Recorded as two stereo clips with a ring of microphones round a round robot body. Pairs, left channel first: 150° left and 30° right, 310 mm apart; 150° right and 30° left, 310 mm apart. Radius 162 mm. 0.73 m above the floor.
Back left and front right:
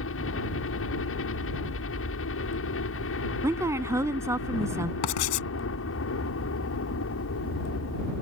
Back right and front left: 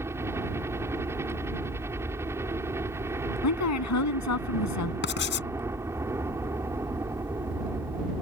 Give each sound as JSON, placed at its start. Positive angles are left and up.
{"t": 0.0, "sound": "a helicopter", "azimuth_deg": 110}
{"t": 3.4, "sound": "a woman speaking", "azimuth_deg": -110}
{"t": 5.0, "sound": "writing", "azimuth_deg": 155}